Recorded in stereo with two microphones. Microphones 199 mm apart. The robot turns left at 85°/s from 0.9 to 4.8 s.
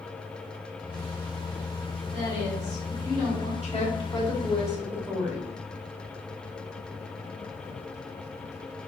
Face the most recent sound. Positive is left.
turn(degrees=-15)